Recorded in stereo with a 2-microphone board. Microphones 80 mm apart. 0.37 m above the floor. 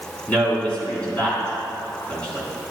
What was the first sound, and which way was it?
A man speaking, 15° left (ahead or behind).